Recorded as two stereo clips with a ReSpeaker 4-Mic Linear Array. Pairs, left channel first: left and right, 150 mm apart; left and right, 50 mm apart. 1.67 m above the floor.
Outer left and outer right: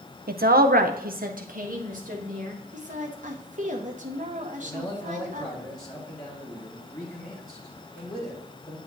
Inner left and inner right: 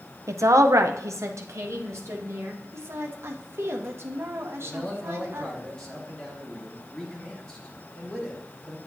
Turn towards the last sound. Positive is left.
turn(degrees=25)  # may be behind; listen again after turning